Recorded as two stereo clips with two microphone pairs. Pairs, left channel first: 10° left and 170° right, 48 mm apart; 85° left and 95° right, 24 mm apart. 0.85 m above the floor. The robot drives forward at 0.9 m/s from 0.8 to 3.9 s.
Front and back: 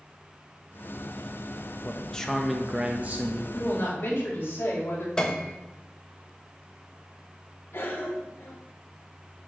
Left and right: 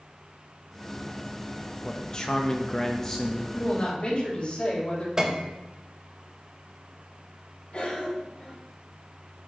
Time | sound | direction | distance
1.8 | a man speaking | 40° left | 1.0 m
3.5 | a woman speaking | 45° left | 4 m
5.2 | a piano | 50° right | 1.0 m
7.7 | a cough | 50° left | 3 m